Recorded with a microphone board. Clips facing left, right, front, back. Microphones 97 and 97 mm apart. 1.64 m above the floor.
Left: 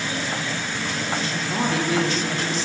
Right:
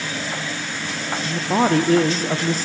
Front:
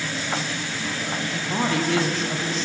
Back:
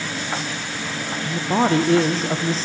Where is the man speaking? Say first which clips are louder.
Right 10 dB, back 7 dB; 130° right, 0.6 m.